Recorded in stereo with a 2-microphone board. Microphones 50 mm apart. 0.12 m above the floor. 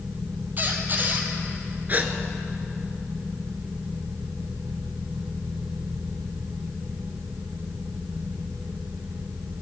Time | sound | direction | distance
0.6 | a squeak | 40° right (ahead or behind) | 1.7 m
1.9 | a gasp | 35° right (ahead or behind) | 1.1 m